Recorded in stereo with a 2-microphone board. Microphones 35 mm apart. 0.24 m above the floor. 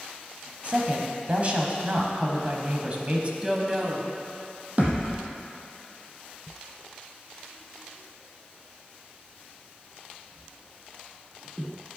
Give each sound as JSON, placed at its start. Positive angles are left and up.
{"t": 0.6, "sound": "a woman speaking", "side_deg": -35, "distance_m": 1.2}
{"t": 3.4, "sound": "a woman speaking", "side_deg": -15, "distance_m": 1.2}
{"t": 4.8, "sound": "a thud", "side_deg": -45, "distance_m": 1.6}